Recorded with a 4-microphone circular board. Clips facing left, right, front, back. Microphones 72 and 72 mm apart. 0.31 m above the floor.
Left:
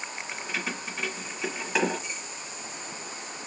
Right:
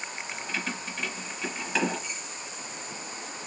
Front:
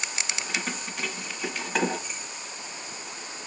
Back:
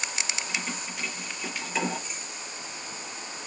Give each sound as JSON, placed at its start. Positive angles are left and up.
{"t": 0.3, "sound": "keys jangling", "azimuth_deg": 15, "distance_m": 2.0}